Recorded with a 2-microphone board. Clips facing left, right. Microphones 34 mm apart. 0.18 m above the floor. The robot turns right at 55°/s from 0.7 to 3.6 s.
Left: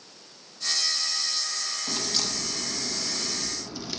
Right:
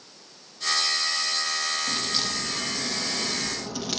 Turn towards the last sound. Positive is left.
turn(degrees=-85)